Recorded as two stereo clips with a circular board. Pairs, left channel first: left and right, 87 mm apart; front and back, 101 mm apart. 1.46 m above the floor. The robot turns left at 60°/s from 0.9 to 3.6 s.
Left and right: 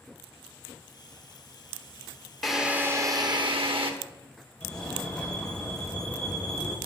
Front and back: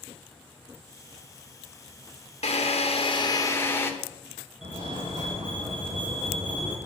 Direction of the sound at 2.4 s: Straight ahead.